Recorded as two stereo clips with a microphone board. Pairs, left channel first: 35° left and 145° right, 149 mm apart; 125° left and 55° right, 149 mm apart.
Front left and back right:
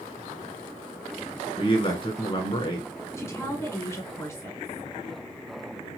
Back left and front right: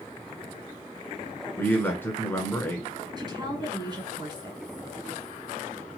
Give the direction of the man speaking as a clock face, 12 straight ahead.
10 o'clock.